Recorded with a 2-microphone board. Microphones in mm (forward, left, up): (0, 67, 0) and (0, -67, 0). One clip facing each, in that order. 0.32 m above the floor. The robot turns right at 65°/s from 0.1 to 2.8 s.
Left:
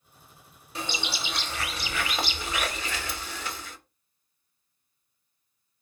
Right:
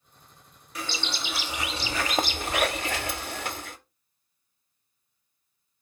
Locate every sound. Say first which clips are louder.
0.8 s a bird: left 1 dB; 145° left, 0.7 m; by 3.8 s 80° right, 0.7 m